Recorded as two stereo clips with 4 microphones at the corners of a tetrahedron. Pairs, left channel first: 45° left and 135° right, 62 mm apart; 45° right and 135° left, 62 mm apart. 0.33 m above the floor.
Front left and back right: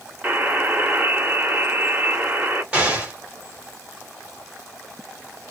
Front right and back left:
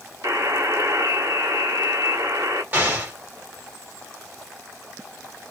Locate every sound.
0.2 s a buzzer: 165° left, 1.0 m
2.7 s an explosion: 170° left, 1.4 m